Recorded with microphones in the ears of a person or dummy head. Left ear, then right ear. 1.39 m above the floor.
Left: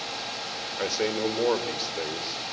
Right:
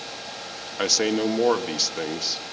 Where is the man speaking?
65° right (ahead or behind), 1.6 m.